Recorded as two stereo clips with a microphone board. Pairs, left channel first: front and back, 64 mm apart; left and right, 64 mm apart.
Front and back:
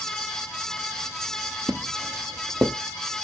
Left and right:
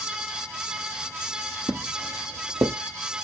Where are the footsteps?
110° right, 0.6 m.